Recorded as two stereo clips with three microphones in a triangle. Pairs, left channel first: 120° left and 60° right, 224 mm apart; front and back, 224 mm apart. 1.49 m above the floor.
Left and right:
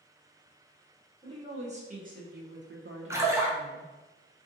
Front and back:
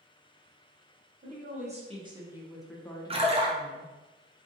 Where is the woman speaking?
125° right, 1.2 m; by 3.9 s 45° right, 0.9 m.